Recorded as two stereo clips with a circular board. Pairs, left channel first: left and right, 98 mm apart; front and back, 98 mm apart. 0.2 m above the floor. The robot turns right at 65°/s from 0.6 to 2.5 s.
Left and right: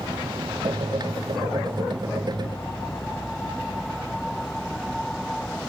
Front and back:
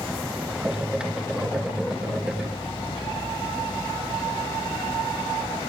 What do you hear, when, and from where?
0.0 s an insect: 100° right; by 5.7 s 25° left